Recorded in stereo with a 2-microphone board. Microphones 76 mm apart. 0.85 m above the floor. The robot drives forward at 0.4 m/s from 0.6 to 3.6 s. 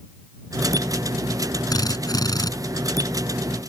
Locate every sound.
1.7 s a drill: 60° left (ahead or behind)